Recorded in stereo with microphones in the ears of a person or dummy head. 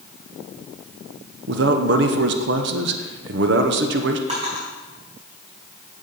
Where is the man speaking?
60° right (ahead or behind), 0.7 m.